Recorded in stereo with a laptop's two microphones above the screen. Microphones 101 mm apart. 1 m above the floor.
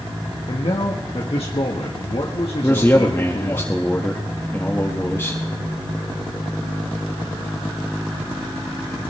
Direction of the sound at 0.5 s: 70° left (ahead or behind).